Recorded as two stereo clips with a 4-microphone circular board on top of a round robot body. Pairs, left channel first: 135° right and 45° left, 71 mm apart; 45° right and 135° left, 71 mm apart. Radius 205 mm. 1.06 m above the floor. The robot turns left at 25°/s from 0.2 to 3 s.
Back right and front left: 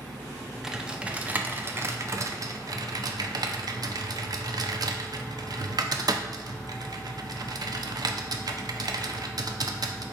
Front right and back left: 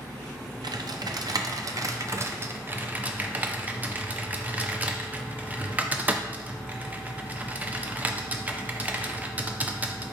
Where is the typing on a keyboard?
125° left, 0.6 m; by 10.0 s 70° left, 0.6 m.